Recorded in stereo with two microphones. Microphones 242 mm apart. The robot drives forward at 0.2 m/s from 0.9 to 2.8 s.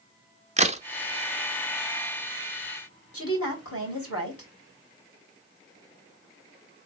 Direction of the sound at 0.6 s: 30° right (ahead or behind).